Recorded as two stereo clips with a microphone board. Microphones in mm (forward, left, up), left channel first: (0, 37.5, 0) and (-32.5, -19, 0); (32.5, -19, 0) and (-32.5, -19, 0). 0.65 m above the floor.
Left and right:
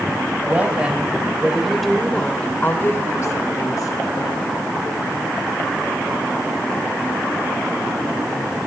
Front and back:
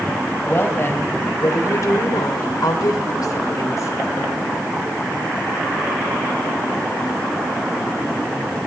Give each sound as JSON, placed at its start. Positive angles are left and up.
{"t": 0.5, "sound": "a woman speaking", "azimuth_deg": -55, "distance_m": 4.0}